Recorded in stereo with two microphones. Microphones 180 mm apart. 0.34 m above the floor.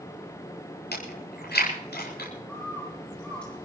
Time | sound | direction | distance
0.9 | chewing | 80° left | 8.5 m
2.5 | a bird | 5° left (ahead or behind) | 8.5 m